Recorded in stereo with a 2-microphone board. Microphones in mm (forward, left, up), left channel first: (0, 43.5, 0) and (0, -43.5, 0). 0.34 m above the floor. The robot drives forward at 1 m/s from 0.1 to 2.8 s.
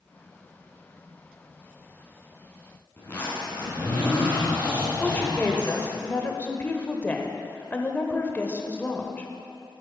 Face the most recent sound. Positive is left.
turn(degrees=20)  # may be behind; listen again after turning